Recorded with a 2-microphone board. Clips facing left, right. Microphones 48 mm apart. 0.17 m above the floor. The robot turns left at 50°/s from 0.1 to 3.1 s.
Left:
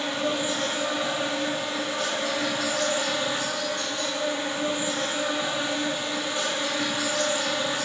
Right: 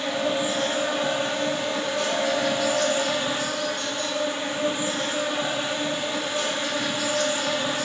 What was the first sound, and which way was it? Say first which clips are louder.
An insect: right 2 dB; straight ahead.